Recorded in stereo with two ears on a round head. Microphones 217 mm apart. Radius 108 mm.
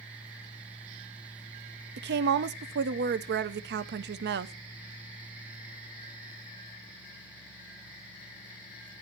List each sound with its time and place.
2.0 s a woman speaking: 45° right (ahead or behind), 0.5 m